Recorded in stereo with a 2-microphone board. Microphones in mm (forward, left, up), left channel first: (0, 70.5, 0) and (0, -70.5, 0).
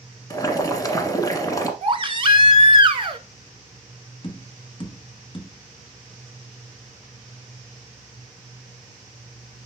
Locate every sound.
0.3 s boiling: 25° left (ahead or behind), 1.1 m
1.8 s a baby crying: 40° right (ahead or behind), 0.7 m
4.2 s tapping: 40° left (ahead or behind), 1.2 m